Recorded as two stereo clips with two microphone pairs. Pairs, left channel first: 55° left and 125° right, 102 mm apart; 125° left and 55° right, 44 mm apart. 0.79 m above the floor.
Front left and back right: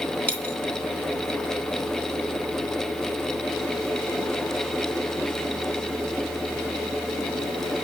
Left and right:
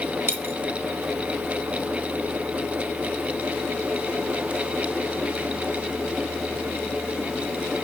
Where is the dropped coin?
25° right, 3 m.